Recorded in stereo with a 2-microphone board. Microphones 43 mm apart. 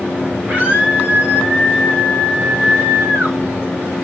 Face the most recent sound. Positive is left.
turn(degrees=-50)  # may be behind; listen again after turning